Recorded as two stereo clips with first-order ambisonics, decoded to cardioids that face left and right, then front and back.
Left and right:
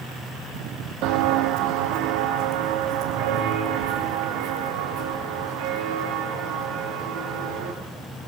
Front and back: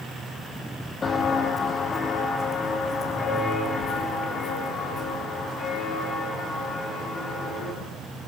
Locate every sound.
1.0 s footsteps: 70° right, 1.1 m; by 7.7 s 65° right, 4.5 m